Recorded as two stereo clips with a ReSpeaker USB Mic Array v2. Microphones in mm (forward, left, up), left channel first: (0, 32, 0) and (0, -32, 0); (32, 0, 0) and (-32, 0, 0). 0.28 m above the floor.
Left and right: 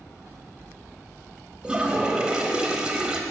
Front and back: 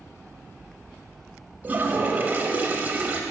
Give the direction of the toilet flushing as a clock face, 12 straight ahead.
5 o'clock.